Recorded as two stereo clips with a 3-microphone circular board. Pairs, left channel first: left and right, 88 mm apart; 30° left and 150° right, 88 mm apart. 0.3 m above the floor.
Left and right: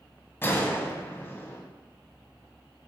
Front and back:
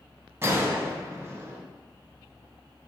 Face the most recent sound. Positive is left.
turn(degrees=155)